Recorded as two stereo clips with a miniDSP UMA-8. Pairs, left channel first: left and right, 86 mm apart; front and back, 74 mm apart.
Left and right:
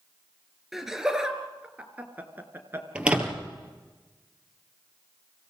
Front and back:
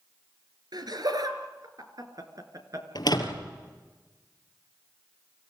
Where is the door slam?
15° right, 3 m.